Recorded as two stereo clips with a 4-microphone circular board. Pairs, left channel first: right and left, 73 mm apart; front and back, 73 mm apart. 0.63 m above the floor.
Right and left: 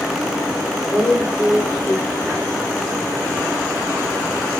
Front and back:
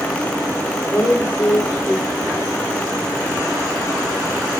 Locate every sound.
0.9 s a woman speaking: 20° right, 1.2 m